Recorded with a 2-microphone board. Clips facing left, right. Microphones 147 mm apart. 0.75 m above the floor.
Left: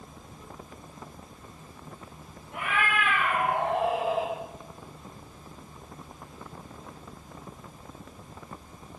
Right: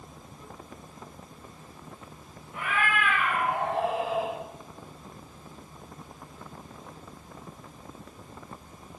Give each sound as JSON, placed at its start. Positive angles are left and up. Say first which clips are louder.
{"t": 2.5, "sound": "a cat meowing", "louder": "even", "side_deg": 70, "distance_m": 7.0}